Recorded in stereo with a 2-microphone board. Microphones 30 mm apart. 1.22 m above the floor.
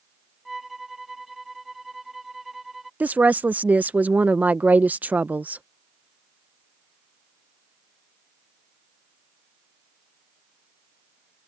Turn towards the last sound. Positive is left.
turn(degrees=-60)  # may be behind; listen again after turning